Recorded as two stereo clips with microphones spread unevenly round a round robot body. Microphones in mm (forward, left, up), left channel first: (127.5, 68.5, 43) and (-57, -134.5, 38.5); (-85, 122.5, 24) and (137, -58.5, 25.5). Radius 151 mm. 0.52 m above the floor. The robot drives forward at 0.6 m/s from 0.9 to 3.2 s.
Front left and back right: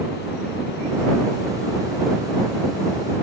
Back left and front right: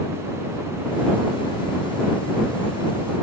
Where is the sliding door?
No sliding door in this recording.